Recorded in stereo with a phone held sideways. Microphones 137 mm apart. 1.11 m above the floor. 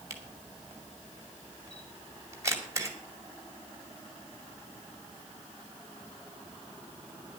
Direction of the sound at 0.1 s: 25° right (ahead or behind).